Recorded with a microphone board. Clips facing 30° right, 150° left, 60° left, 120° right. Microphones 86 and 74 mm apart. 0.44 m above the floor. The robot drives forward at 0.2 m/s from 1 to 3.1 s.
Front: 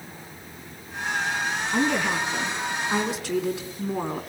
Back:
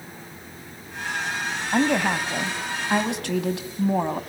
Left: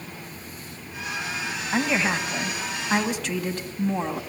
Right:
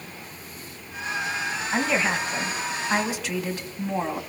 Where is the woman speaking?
155° left, 2.5 m.